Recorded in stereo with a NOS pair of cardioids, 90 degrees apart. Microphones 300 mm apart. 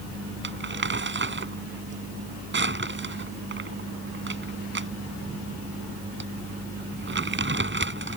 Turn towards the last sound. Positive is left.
turn(degrees=-35)